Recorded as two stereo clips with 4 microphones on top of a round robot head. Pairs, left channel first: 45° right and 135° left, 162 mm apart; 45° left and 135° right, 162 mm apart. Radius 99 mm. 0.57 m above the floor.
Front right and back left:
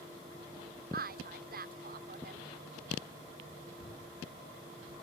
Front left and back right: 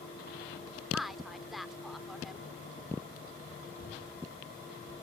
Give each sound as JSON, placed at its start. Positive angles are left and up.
{"t": 0.9, "sound": "a woman speaking", "azimuth_deg": 135}
{"t": 3.8, "sound": "knocking", "azimuth_deg": 15}